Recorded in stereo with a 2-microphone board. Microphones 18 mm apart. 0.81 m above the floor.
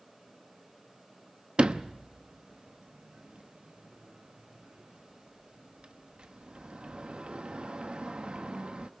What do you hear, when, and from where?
1.6 s a sliding door: 60° right (ahead or behind), 0.8 m